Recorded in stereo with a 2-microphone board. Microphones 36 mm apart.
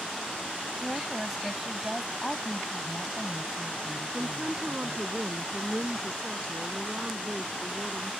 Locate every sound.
0.8 s a woman speaking: 10° right (ahead or behind)
2.2 s a woman speaking: 15° left (ahead or behind)
4.1 s a woman speaking: 30° right (ahead or behind)